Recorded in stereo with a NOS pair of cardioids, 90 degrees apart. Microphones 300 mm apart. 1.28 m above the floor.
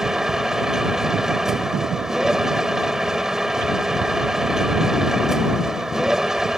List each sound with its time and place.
0.0 s a machine running: straight ahead